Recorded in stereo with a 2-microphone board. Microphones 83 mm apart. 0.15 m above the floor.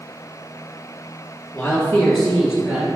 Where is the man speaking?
25° left (ahead or behind), 1.7 m; by 2.9 s 20° right (ahead or behind), 1.7 m.